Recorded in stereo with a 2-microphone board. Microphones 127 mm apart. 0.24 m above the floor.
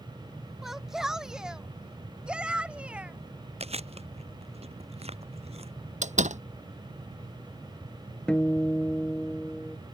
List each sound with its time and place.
0.6 s a shout: 5° right (ahead or behind); by 3.2 s 10° right (ahead or behind)
3.6 s chewing: 55° right (ahead or behind)
6.0 s a door slam: 70° right (ahead or behind)
8.3 s a guitar: 10° left (ahead or behind)